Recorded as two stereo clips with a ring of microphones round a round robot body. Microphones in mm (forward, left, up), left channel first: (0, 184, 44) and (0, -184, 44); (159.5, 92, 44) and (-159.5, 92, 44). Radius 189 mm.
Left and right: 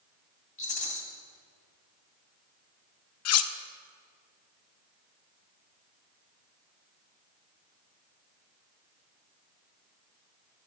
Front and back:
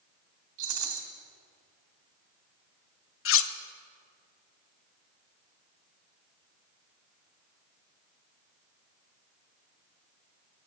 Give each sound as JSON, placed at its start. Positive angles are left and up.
{"t": 0.6, "sound": "a rattle", "azimuth_deg": 160, "distance_m": 1.9}
{"t": 3.2, "sound": "cutlery clinking", "azimuth_deg": 45, "distance_m": 0.5}